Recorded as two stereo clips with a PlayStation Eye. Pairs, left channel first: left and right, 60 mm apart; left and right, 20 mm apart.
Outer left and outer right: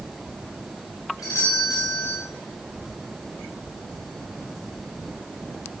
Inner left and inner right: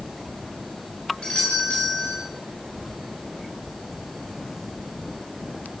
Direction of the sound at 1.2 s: 80° left.